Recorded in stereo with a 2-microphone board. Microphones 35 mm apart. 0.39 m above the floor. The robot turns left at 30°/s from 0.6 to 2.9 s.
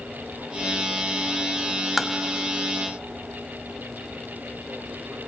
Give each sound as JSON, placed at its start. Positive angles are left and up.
{"t": 2.0, "sound": "tapping", "side_deg": -5, "distance_m": 1.0}